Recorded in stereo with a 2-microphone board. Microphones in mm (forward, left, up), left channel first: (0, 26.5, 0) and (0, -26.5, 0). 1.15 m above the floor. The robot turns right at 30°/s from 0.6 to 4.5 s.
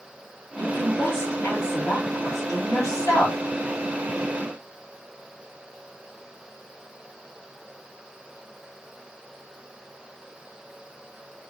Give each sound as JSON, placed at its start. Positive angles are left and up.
{"t": 0.6, "sound": "a woman speaking", "azimuth_deg": 30, "distance_m": 2.5}